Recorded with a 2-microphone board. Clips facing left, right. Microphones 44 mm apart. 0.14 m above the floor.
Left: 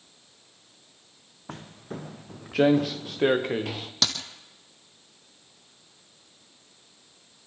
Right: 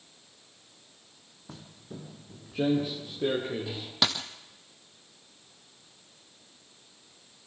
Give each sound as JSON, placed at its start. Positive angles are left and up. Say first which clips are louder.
{"t": 1.5, "sound": "footsteps", "louder": "left 7 dB", "side_deg": 55, "distance_m": 0.9}
{"t": 4.0, "sound": "a dropped coin", "louder": "right 1 dB", "side_deg": -15, "distance_m": 1.4}